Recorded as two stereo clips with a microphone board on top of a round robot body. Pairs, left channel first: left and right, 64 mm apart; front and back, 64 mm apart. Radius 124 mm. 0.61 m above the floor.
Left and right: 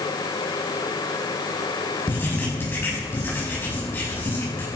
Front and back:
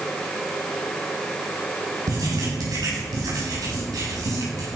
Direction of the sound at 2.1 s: 150° left.